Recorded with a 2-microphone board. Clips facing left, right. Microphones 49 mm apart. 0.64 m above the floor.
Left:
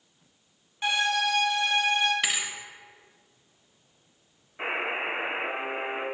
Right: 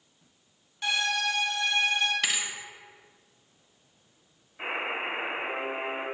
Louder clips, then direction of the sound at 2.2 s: Left 1 dB; 5° left (ahead or behind).